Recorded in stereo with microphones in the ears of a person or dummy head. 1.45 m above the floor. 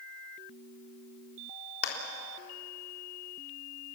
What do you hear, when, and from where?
1.8 s a clap: 75° left (ahead or behind), 4 m